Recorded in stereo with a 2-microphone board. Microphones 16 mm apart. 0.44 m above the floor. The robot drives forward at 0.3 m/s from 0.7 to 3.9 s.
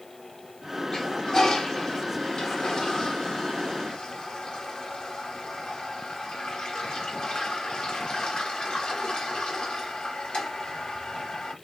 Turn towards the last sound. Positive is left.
turn(degrees=70)  # may be behind; listen again after turning